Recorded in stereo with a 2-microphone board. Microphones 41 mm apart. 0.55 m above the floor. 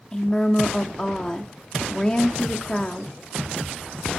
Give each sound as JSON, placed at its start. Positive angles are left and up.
{"t": 0.1, "sound": "a woman speaking", "side_deg": 20, "distance_m": 0.6}